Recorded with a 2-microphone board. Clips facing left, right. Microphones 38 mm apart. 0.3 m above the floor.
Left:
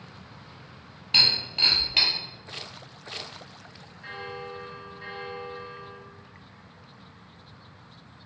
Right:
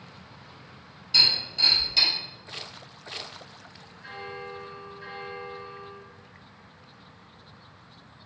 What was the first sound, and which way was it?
Breaking glass, 55° left (ahead or behind).